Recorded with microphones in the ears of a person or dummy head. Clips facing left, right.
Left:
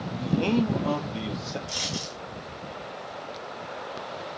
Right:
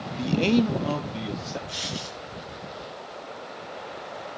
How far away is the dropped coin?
About 3.5 m.